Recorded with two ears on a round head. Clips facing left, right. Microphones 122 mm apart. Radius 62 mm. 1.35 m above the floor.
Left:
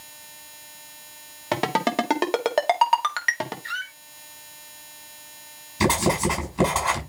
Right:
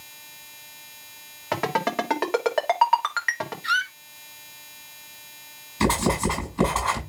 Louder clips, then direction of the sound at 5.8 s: Left 1 dB; 20° left (ahead or behind).